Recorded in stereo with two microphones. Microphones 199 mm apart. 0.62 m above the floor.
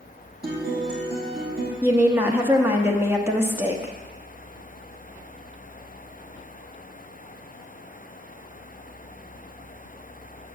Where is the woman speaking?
10° right (ahead or behind), 1.0 m.